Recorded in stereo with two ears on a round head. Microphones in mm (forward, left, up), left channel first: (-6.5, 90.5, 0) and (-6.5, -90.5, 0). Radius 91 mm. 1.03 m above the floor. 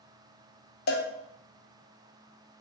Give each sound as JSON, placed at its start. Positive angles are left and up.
{"t": 0.9, "sound": "a cowbell", "side_deg": 50, "distance_m": 0.5}